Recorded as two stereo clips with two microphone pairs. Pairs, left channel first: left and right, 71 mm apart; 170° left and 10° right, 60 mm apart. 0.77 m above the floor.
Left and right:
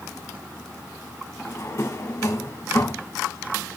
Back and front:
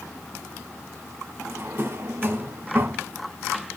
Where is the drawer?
45° left, 1.5 m.